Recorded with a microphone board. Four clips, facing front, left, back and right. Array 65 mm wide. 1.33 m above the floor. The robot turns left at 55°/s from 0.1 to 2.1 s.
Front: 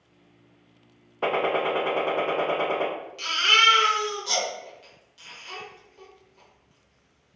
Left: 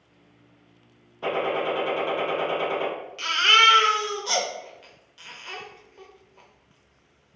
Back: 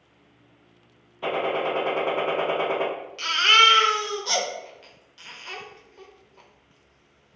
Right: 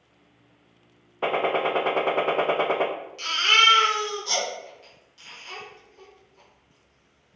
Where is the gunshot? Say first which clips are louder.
Right 2 dB, front 1 dB; 45° right, 0.6 m; by 2.9 s 95° right, 0.6 m.